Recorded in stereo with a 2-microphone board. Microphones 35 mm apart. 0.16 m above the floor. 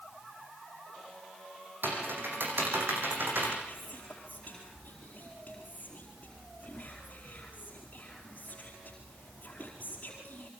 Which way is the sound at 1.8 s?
75° right (ahead or behind).